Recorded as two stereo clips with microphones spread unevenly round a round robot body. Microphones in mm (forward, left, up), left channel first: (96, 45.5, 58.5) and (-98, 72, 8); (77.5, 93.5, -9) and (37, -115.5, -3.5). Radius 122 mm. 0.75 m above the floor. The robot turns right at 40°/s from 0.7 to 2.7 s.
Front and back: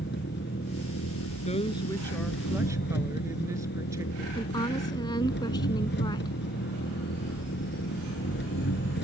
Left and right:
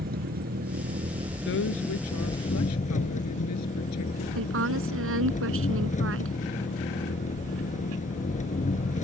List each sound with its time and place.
0.0 s an engine running: 55° right; by 9.1 s 25° left
1.4 s a woman speaking: 45° left; by 4.2 s 95° left
4.3 s a woman speaking: 80° right